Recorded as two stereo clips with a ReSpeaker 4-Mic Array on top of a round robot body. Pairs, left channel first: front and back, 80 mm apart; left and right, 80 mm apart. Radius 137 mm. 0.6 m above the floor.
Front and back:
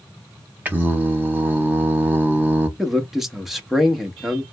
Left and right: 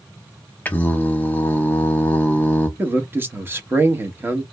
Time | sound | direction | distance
0.7 | singing | 135° left | 1.1 m
2.8 | a man speaking | 95° right | 1.1 m